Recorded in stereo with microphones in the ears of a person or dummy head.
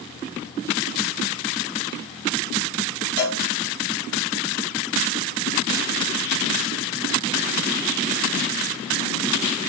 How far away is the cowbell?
About 1.6 m.